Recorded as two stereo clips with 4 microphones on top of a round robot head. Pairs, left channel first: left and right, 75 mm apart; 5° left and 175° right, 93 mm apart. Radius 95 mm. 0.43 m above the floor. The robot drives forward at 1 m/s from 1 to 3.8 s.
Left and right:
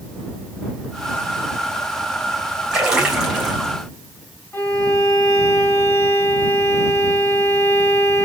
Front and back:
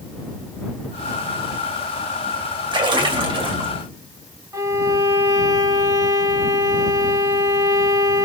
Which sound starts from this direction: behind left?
A violin, at 4.5 s.